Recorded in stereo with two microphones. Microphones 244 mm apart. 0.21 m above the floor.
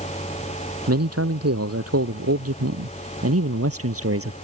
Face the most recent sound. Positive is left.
turn(degrees=-65)  # may be behind; listen again after turning